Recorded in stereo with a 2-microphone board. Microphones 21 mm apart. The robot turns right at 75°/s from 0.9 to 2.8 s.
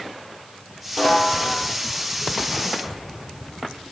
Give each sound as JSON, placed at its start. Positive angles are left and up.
{"t": 1.0, "sound": "a snare drum", "azimuth_deg": 10, "distance_m": 5.0}